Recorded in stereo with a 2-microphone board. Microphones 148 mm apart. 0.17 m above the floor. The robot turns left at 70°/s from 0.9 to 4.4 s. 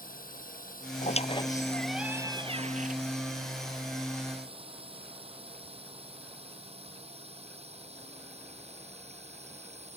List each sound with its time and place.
0.0 s a drone: 75° left (ahead or behind); by 10.0 s 50° right (ahead or behind)
1.0 s a squeak: 60° left; by 3.0 s 75° right